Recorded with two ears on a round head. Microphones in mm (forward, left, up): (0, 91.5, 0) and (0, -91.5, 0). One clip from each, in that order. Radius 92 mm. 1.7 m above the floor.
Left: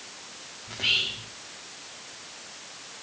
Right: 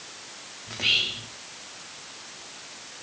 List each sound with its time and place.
0.7 s whispering: 10° right (ahead or behind), 1.7 m